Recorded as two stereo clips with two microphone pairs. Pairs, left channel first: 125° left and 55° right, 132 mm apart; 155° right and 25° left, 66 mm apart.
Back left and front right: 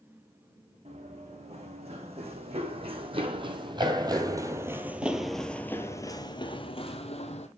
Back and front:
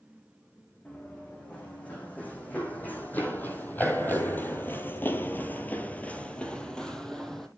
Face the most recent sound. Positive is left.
turn(degrees=120)